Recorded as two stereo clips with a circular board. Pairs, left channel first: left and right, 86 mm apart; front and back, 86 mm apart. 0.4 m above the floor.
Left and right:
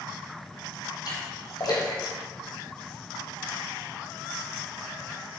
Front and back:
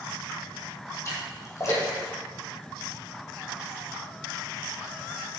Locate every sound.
1.1 s a splash: 50° left, 3 m